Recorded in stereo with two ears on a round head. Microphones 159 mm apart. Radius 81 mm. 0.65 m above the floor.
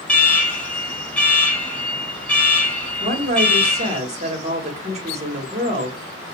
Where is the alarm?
5° left (ahead or behind), 1.4 m.